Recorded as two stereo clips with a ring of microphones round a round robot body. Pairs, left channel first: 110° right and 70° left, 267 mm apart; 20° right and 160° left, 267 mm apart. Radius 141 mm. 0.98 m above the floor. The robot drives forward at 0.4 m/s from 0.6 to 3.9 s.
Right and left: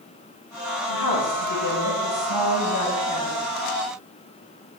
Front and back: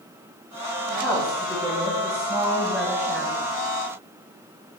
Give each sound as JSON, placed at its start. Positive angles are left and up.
{"t": 0.9, "sound": "a woman speaking", "azimuth_deg": -100, "distance_m": 5.0}